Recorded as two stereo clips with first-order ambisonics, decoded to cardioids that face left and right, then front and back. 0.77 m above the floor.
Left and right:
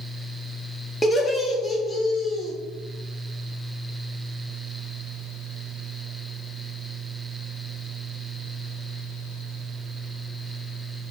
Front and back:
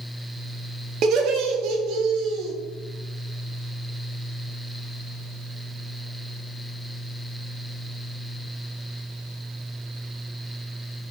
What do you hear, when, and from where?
1.0 s laughter: 160° left, 0.6 m